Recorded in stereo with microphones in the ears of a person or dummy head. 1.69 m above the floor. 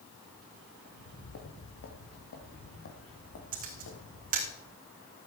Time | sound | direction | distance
0.8 | footsteps | 55° left (ahead or behind) | 3 m
3.5 | a camera shutter | 40° right (ahead or behind) | 3.5 m